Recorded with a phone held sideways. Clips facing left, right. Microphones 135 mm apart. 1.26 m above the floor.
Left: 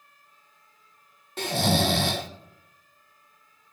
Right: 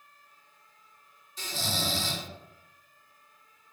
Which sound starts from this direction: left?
Snoring, at 1.4 s.